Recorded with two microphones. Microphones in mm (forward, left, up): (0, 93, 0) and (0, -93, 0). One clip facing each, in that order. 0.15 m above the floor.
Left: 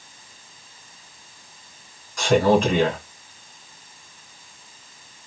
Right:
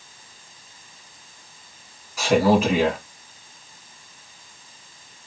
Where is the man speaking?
5° right (ahead or behind), 1.1 m.